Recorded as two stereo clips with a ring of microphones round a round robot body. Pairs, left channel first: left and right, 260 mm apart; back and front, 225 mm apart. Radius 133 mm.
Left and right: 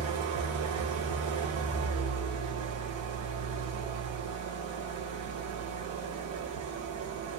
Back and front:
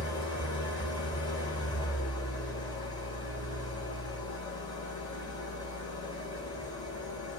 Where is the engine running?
110° right, 2.0 m.